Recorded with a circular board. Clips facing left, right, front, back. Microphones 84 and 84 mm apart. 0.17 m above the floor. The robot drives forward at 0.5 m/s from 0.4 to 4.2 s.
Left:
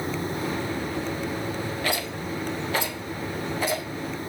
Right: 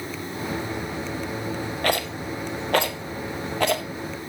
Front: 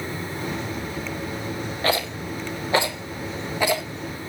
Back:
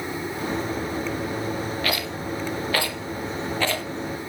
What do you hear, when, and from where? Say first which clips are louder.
1.8 s a rattle: right 3 dB, front 3 dB; 60° right, 3 m; by 3.8 s 80° right, 2.5 m